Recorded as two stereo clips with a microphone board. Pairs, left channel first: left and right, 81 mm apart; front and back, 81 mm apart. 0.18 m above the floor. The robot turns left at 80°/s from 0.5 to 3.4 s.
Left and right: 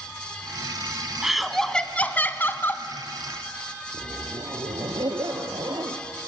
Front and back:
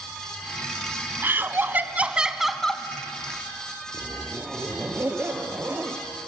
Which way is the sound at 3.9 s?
115° right.